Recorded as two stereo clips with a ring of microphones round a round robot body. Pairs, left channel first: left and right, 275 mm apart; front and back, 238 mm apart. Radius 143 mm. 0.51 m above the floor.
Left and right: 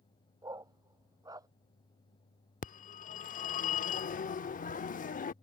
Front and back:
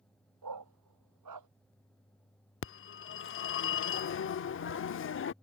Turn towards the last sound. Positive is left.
turn(degrees=30)